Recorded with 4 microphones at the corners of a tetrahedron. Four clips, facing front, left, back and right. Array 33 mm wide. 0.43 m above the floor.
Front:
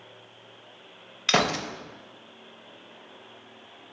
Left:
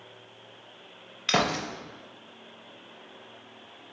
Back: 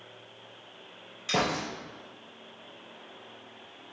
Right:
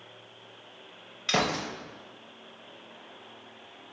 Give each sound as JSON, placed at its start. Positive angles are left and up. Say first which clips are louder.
{"t": 1.3, "sound": "a gunshot", "louder": "left 2 dB, front 5 dB", "azimuth_deg": 20, "distance_m": 0.5}